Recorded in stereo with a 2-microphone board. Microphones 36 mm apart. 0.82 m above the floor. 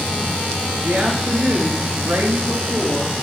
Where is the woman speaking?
40° right (ahead or behind), 1.5 m; by 3.1 s 60° right (ahead or behind), 1.6 m.